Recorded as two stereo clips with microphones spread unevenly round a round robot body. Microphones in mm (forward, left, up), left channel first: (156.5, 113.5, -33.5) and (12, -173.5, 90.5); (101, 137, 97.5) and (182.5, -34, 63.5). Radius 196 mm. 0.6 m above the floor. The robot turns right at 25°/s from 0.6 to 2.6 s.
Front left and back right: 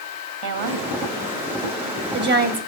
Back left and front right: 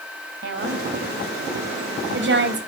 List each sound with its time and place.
0.4 s a woman speaking: 95° right, 3.5 m; by 2.6 s 45° right, 3.5 m